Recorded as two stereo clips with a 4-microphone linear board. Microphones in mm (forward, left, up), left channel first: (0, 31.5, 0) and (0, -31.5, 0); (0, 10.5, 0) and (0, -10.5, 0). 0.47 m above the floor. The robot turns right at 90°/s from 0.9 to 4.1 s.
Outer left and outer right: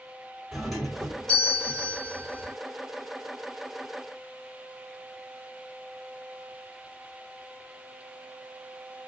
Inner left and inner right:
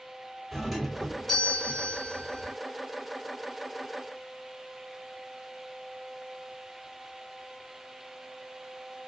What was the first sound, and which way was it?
A doorbell, 5° right.